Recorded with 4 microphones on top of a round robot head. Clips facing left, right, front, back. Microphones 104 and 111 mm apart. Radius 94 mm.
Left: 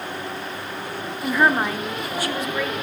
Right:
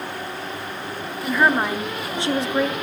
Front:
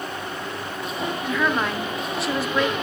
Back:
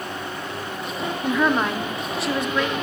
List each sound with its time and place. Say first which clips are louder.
1.2 s a woman speaking: even, back 4 dB; 155° left, 0.9 m; by 2.8 s 80° right, 1.0 m